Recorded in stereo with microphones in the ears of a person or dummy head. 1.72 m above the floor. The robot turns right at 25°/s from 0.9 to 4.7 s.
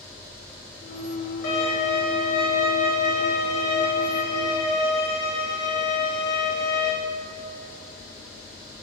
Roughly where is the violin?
Behind left.